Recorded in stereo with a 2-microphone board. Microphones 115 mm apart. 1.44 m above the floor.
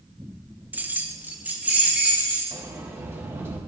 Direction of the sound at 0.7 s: 15° right (ahead or behind).